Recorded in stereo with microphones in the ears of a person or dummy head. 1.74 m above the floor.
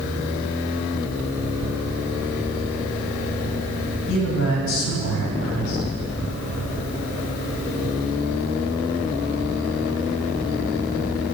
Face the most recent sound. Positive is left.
turn(degrees=80)